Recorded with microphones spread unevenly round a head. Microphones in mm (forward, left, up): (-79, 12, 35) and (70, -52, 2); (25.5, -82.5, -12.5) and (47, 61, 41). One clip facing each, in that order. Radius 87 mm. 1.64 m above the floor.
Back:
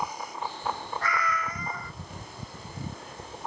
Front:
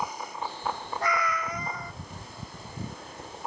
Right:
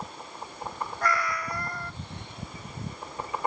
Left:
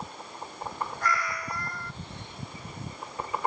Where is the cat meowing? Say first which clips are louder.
Front 2 dB, right 4 dB; 95° right, 0.9 m.